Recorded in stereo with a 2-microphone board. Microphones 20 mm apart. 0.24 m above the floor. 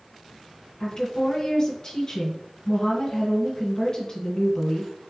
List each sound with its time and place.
0.8 s a woman speaking: 40° left (ahead or behind), 1.6 m